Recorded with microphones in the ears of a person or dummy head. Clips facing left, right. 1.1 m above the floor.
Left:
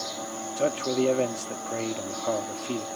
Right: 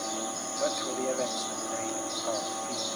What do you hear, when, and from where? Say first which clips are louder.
0.6 s a man speaking: left 7 dB; 40° left (ahead or behind)